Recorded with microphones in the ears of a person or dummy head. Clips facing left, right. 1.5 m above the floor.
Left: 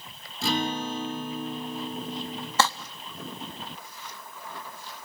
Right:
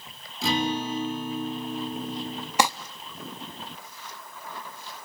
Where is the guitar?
5° right (ahead or behind), 4.5 m.